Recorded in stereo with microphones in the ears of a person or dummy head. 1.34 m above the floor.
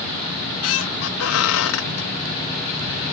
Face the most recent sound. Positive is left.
turn(degrees=75)  # may be behind; listen again after turning